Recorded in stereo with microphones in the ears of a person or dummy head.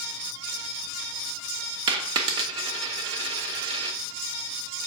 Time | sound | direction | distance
1.9 | a dropped coin | 30° right (ahead or behind) | 0.7 m